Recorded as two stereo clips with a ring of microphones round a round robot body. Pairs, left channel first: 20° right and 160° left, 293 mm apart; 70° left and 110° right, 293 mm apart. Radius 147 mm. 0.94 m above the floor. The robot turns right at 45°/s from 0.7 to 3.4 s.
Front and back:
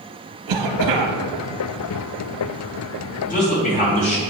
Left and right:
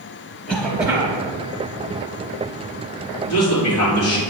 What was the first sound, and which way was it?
A cough, 160° left.